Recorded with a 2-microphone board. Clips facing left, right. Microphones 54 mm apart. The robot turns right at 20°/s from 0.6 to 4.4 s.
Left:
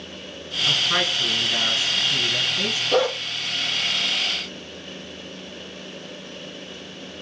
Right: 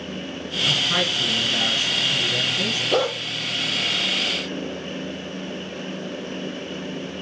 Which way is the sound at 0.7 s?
10° left (ahead or behind).